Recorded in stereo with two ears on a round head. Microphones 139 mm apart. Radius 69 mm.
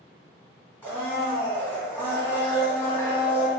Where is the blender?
10° left (ahead or behind), 1.5 m.